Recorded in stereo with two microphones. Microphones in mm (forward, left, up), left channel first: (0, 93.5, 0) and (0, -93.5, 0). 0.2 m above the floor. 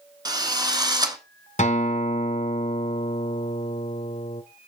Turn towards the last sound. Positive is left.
turn(degrees=40)  # may be behind; listen again after turning